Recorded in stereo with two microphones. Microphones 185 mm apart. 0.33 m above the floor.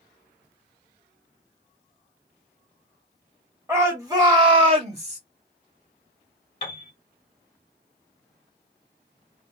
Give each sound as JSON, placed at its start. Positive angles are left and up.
{"t": 3.7, "sound": "a shout", "side_deg": -15, "distance_m": 1.4}
{"t": 6.6, "sound": "a piano", "side_deg": 35, "distance_m": 1.8}